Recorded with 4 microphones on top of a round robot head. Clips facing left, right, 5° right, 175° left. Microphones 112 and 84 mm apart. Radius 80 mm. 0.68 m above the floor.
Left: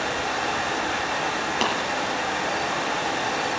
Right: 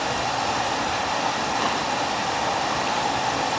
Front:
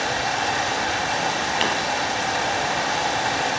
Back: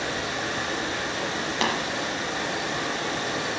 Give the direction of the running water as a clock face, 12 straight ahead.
1 o'clock.